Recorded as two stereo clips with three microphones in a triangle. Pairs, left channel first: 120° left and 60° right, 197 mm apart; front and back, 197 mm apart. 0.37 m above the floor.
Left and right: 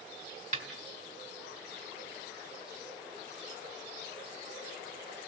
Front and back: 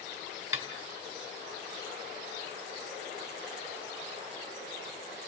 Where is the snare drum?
105° right, 1.9 m.